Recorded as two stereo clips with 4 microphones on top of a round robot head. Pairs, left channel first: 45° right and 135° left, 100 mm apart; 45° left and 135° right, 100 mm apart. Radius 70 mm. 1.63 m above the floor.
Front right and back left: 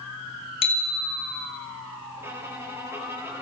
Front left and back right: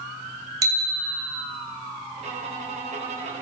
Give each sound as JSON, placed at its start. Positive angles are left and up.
{"t": 0.6, "sound": "a bicycle bell", "azimuth_deg": -80, "distance_m": 2.5}
{"t": 2.2, "sound": "a violin", "azimuth_deg": -155, "distance_m": 4.5}